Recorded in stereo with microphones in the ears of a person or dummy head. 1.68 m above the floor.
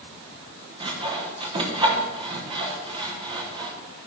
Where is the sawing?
30° right (ahead or behind), 1.0 m.